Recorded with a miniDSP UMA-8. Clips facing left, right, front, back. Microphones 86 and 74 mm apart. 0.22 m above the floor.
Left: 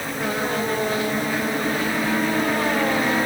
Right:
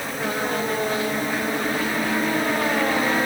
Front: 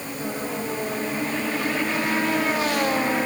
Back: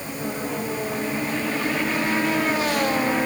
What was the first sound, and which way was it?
Only background noise.